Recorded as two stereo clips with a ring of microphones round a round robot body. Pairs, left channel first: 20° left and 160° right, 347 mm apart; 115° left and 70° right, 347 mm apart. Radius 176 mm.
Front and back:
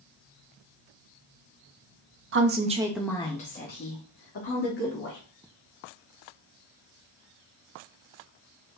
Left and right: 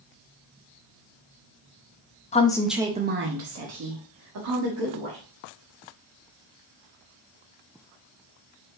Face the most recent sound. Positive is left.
turn(degrees=-30)